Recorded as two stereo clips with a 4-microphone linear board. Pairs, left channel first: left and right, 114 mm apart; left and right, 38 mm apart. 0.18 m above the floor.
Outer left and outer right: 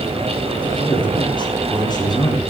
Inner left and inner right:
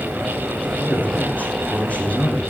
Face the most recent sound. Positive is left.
turn(degrees=35)  # may be behind; listen again after turning